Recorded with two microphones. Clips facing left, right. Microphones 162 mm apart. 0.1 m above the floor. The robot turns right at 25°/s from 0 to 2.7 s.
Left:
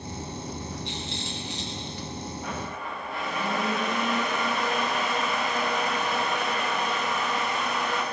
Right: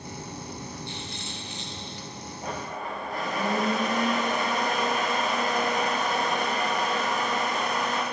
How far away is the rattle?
About 8.5 m.